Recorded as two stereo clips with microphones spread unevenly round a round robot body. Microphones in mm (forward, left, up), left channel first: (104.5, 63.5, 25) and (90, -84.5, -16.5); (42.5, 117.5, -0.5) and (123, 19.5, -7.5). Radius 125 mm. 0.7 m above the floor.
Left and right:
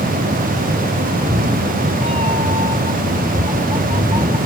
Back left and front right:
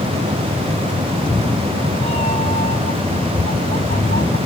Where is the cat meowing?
160° right; by 4.4 s 175° right.